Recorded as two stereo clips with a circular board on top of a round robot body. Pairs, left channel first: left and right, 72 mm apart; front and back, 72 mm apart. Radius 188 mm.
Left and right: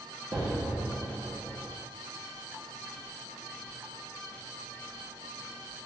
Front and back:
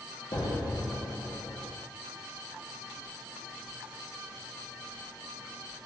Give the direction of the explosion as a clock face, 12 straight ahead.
1 o'clock.